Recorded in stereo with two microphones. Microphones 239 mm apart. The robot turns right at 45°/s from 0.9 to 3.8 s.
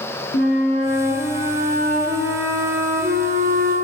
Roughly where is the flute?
Behind left.